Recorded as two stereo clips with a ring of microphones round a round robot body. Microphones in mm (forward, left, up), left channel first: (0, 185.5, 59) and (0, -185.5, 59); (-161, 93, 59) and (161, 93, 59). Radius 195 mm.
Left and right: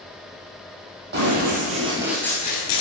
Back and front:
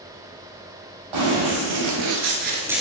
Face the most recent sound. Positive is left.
turn(degrees=95)